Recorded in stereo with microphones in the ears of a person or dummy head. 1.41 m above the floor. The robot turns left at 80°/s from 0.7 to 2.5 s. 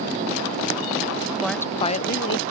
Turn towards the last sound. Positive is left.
turn(degrees=95)